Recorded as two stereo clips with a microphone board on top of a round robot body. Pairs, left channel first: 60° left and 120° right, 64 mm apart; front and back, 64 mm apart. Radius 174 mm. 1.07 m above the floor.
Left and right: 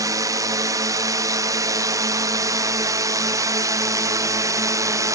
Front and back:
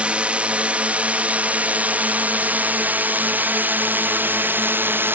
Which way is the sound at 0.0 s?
110° right.